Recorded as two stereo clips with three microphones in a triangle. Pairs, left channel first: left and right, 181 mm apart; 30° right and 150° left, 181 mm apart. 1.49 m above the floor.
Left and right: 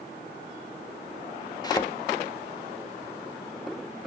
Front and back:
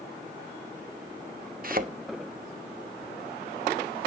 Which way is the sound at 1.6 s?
150° left.